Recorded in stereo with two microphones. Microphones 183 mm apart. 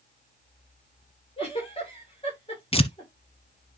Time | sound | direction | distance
1.4 | a giggle | 30° left (ahead or behind) | 8.5 m
2.7 | tearing paper | 30° left (ahead or behind) | 0.8 m